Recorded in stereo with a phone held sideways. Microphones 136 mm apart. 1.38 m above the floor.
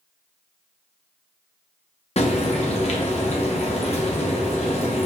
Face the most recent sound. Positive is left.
turn(degrees=50)  # may be behind; listen again after turning